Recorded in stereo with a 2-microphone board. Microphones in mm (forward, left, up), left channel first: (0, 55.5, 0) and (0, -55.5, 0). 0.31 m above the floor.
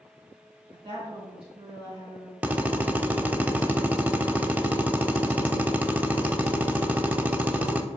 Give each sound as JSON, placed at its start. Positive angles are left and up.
{"t": 0.7, "sound": "a woman speaking", "side_deg": -55, "distance_m": 2.5}
{"t": 2.4, "sound": "a drill", "side_deg": -15, "distance_m": 0.5}